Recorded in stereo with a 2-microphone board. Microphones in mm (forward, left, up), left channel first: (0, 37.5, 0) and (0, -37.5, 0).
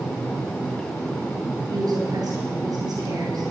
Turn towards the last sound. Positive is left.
turn(degrees=-65)  # may be behind; listen again after turning